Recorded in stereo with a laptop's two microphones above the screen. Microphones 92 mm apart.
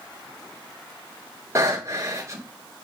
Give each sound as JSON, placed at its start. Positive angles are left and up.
{"t": 1.6, "sound": "breathing", "side_deg": -30, "distance_m": 2.5}